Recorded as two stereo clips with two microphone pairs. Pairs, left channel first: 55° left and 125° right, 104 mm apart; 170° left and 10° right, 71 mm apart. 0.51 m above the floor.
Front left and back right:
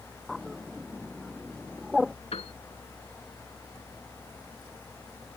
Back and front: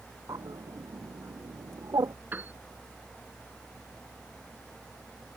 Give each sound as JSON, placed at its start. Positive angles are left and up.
{"t": 0.3, "sound": "a bird", "azimuth_deg": -35}
{"t": 2.3, "sound": "a piano", "azimuth_deg": 55}